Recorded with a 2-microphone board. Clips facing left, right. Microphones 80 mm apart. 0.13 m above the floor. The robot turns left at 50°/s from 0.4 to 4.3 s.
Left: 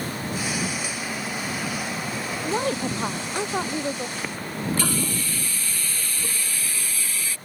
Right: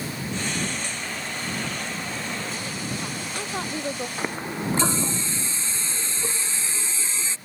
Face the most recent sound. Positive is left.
turn(degrees=-20)  # may be behind; listen again after turning